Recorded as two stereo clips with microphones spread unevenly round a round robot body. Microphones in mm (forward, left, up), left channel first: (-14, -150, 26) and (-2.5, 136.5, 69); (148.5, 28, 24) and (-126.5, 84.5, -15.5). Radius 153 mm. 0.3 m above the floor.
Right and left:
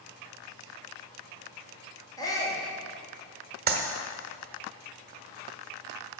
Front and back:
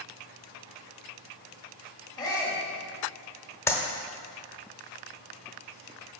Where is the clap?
75° left, 1.1 m.